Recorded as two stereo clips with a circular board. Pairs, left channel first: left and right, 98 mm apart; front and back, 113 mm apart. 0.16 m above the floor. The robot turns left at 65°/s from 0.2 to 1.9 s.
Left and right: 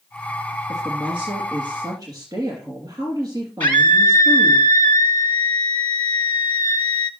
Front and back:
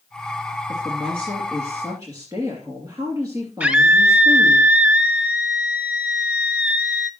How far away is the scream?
About 1.1 m.